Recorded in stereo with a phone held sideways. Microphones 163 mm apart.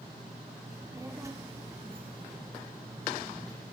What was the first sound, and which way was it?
A child speaking, 20° right (ahead or behind).